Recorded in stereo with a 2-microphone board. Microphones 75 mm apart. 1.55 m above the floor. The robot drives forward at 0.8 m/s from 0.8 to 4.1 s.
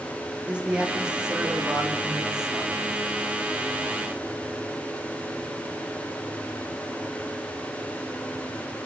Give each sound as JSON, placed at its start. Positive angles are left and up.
{"t": 0.5, "sound": "a man speaking", "side_deg": -10, "distance_m": 2.0}